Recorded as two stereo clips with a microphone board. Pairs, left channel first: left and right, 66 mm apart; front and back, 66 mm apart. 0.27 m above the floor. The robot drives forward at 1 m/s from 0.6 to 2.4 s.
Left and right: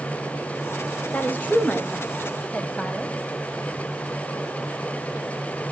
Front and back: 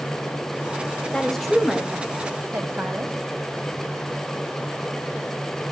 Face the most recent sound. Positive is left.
turn(degrees=145)